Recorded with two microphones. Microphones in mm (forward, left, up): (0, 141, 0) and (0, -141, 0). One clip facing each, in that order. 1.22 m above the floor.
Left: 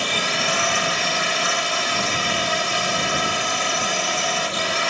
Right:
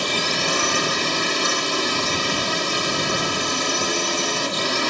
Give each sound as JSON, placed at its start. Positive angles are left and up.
{"t": 0.0, "sound": "a drone", "side_deg": -50}